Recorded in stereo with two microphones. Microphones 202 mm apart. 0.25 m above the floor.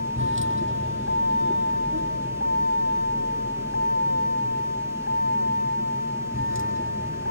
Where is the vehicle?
75° right (ahead or behind); by 7.3 s 80° right.